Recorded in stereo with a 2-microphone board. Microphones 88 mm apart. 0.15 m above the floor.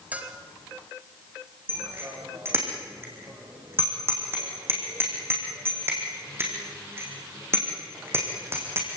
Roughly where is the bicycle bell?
Right.